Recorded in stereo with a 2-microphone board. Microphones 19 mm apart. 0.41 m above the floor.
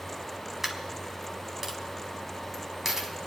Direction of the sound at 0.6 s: 20° right (ahead or behind).